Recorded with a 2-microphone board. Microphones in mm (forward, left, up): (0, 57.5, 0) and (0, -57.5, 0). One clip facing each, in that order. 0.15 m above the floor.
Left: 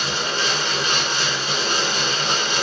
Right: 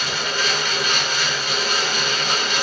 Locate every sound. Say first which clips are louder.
0.0 s running water: even; 30° left (ahead or behind), 1.0 m